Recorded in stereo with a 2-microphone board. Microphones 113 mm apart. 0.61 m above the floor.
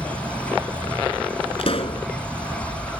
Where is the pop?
55° left (ahead or behind).